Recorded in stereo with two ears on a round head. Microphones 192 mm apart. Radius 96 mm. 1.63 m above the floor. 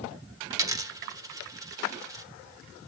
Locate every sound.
0.5 s a dropped coin: 15° right (ahead or behind), 0.9 m